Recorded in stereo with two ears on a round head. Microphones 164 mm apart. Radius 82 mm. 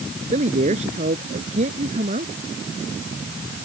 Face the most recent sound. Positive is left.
turn(degrees=-40)  # may be behind; listen again after turning